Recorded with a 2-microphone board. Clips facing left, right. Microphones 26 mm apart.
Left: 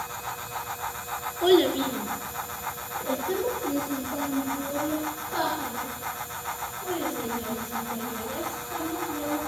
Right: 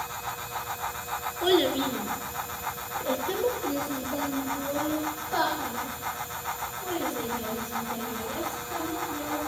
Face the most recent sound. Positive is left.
turn(degrees=-50)  # may be behind; listen again after turning